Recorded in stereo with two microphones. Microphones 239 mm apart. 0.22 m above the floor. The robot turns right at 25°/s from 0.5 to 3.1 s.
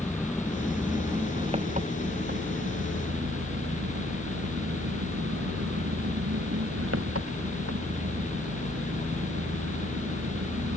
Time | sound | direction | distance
0.0 | an engine running | straight behind | ?